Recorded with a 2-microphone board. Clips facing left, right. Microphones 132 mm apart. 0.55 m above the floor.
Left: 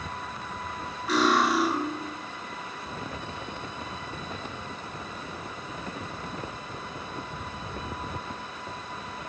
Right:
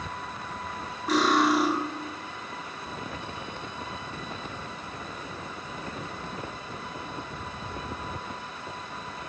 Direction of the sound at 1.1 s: 45° right (ahead or behind).